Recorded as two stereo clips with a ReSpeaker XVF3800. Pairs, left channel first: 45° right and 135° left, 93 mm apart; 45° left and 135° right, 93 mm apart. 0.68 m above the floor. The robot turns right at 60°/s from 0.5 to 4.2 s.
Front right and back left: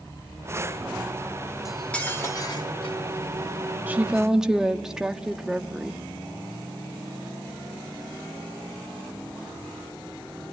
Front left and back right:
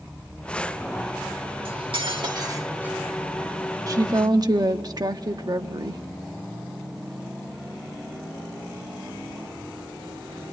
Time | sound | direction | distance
1.6 | cutlery clinking | 140° right | 1.2 m
3.9 | a woman speaking | 165° right | 1.2 m